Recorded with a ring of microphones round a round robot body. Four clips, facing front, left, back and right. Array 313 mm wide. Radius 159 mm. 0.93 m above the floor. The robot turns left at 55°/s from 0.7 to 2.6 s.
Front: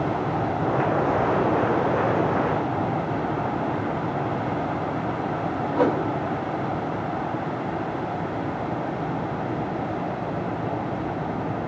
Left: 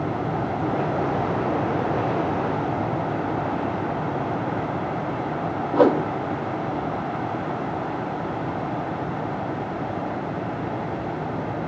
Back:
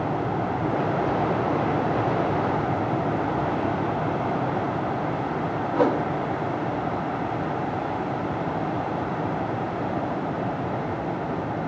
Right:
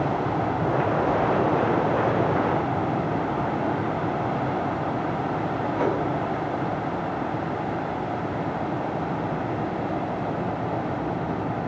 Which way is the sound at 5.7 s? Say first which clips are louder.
Left 9 dB, even; 90° left.